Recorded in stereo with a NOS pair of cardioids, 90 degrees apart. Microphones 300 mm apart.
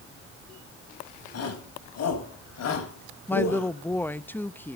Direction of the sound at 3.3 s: 5° left.